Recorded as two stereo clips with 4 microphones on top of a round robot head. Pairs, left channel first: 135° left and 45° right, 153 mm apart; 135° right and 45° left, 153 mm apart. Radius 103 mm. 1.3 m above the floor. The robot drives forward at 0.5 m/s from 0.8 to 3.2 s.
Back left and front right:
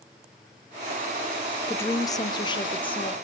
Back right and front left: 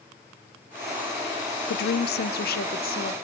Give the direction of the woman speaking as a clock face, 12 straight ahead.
5 o'clock.